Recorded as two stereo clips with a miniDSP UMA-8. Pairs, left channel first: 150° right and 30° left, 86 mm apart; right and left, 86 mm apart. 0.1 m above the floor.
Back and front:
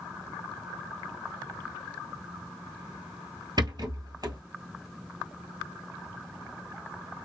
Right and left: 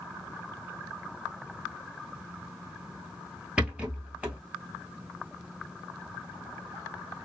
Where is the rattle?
15° left, 1.4 m.